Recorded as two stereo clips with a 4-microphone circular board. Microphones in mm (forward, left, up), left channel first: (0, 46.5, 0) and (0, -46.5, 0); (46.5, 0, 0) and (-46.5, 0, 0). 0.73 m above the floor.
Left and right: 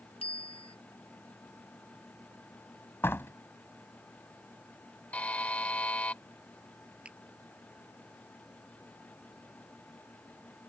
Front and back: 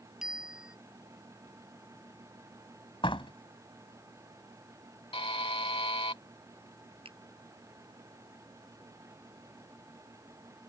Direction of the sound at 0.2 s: 95° left.